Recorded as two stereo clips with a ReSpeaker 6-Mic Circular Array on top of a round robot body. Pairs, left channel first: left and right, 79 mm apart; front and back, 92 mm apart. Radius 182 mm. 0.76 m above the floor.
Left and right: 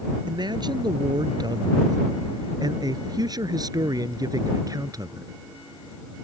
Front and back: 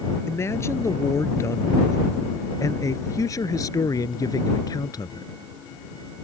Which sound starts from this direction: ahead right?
A man speaking, at 0.3 s.